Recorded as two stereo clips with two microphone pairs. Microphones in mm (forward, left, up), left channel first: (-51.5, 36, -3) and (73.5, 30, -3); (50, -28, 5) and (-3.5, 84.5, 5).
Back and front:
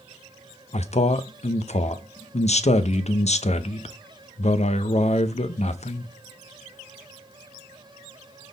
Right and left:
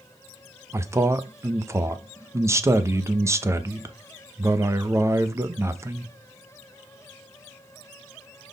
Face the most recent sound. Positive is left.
turn(degrees=180)